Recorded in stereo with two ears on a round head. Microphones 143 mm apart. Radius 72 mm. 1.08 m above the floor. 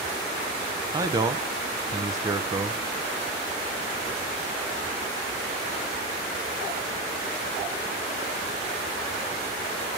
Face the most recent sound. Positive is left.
turn(degrees=-25)  # may be behind; listen again after turning